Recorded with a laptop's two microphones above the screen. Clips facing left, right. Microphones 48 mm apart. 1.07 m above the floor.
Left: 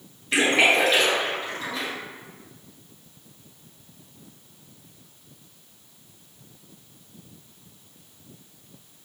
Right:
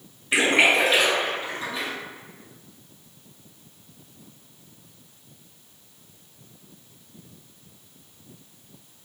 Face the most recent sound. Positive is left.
turn(degrees=-10)  # may be behind; listen again after turning